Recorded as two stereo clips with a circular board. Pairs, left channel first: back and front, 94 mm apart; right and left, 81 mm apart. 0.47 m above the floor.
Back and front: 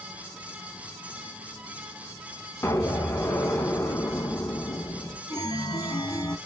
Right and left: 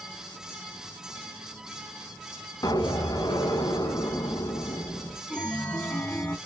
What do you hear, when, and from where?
2.6 s an explosion: 120° right, 0.8 m
5.3 s a chime: 160° right, 1.0 m